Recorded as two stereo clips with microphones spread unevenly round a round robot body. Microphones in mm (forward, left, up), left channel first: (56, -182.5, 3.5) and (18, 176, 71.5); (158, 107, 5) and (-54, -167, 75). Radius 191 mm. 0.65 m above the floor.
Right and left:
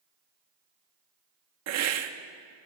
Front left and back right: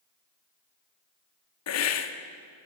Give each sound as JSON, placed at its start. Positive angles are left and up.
{"t": 1.7, "sound": "a hiss", "azimuth_deg": 50, "distance_m": 0.9}